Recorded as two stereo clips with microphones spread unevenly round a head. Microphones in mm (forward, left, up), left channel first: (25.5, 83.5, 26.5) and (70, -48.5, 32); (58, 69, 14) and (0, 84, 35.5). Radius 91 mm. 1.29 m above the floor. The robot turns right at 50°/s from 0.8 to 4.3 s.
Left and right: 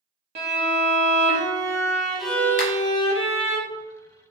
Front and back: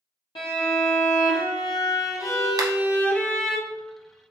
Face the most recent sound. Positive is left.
turn(degrees=-140)